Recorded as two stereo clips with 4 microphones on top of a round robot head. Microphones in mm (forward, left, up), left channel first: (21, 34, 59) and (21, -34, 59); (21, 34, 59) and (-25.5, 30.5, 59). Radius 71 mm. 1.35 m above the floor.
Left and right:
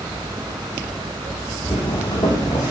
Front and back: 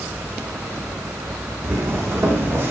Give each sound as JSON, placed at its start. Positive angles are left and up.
{"t": 1.6, "sound": "footsteps", "azimuth_deg": 150, "distance_m": 5.0}